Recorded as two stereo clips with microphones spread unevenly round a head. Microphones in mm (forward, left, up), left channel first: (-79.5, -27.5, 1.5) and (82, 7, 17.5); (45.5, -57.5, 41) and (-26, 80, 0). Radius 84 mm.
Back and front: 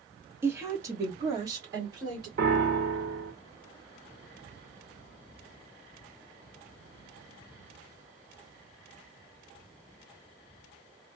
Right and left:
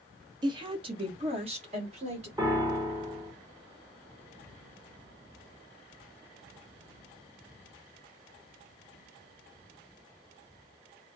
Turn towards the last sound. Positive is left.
turn(degrees=55)